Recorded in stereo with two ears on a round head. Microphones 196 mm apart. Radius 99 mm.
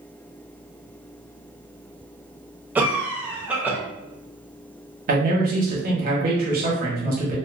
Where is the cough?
5° right (ahead or behind), 0.6 m.